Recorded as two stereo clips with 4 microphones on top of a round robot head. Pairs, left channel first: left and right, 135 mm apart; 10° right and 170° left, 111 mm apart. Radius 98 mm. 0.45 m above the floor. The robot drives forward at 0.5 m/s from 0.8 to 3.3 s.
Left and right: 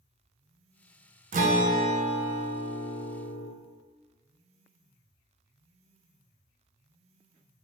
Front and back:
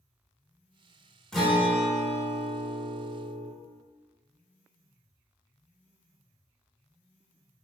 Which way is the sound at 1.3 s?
90° right.